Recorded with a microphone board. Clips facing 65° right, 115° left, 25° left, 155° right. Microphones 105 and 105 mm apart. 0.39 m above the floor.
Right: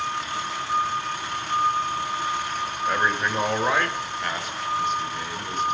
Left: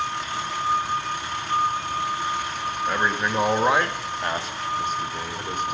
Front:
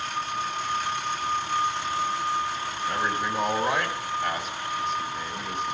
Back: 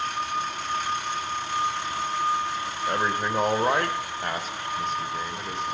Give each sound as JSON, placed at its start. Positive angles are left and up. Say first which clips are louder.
{"t": 2.9, "sound": "a man speaking", "louder": "right 1 dB, back 2 dB", "azimuth_deg": -160, "distance_m": 1.5}